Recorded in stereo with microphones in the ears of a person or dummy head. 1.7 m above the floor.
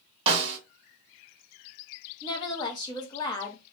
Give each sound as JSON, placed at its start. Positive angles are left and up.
{"t": 0.3, "sound": "a snare drum", "side_deg": -35, "distance_m": 0.7}
{"t": 2.2, "sound": "a woman speaking", "side_deg": 25, "distance_m": 0.8}